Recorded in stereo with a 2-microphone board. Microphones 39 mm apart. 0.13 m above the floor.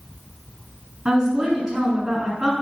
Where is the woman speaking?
20° right (ahead or behind), 1.3 m.